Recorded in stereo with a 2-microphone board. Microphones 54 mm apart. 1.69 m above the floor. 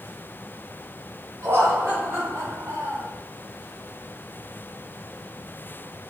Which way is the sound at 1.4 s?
40° right (ahead or behind).